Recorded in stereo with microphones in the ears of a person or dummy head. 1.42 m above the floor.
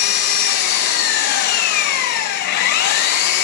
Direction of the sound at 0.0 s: 45° left (ahead or behind).